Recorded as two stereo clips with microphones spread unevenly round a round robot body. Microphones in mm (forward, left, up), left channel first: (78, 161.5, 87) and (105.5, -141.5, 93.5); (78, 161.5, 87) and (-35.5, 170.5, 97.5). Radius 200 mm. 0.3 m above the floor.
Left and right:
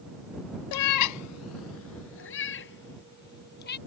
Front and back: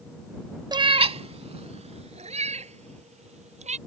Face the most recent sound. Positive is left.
turn(degrees=160)